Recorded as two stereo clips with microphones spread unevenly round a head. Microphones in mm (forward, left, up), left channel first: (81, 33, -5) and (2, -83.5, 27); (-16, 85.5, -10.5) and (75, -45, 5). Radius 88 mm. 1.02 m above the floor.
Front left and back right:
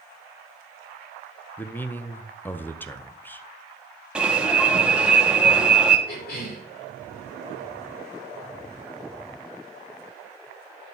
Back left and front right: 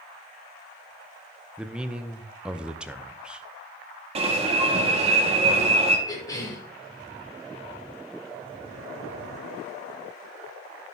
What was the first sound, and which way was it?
A man speaking, 35° left.